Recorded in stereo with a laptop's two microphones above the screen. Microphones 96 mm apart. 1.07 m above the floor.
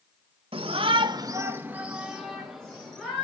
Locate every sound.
0.5 s a shout: 70° right (ahead or behind), 1.1 m; by 3.2 s 5° left (ahead or behind), 3 m